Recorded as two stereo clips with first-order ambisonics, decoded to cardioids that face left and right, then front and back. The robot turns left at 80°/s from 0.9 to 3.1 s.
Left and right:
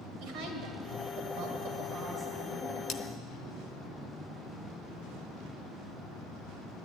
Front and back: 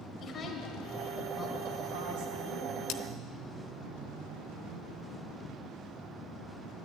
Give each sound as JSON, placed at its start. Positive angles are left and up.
{"t": 0.2, "sound": "a woman speaking", "azimuth_deg": -60, "distance_m": 2.5}
{"t": 2.9, "sound": "cutlery clinking", "azimuth_deg": 35, "distance_m": 0.8}